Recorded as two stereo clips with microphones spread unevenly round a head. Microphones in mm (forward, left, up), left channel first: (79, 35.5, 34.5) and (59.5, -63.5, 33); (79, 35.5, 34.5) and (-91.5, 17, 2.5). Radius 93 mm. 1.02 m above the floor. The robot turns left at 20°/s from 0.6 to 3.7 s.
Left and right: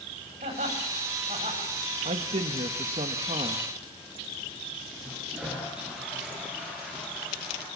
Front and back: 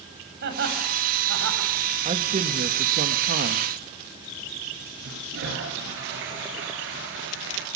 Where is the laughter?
140° right, 7.5 m; by 1.7 s 160° right, 7.5 m.